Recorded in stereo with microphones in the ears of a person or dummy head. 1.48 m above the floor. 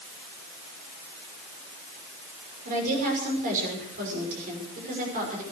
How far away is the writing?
I don't hear writing.